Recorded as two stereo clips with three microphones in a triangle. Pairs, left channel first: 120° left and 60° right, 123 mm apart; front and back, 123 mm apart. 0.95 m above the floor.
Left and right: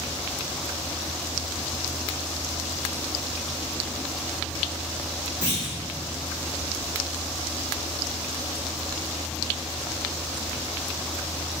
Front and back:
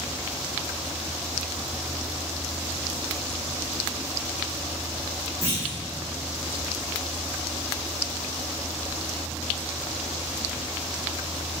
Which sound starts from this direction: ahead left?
A clunk, at 5.4 s.